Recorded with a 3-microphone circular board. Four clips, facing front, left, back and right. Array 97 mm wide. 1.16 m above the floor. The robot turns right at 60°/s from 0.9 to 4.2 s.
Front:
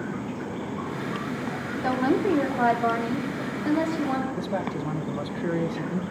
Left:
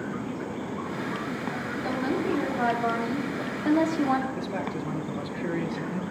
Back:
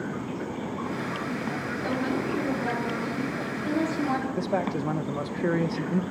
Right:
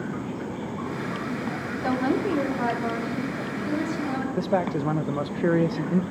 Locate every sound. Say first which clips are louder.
1.8 s a woman speaking: right 4 dB, front 7 dB; 35° right, 3.5 m; by 4.3 s 105° left, 3.5 m
4.4 s a man speaking: right 7 dB, back 2 dB; 100° right, 1.0 m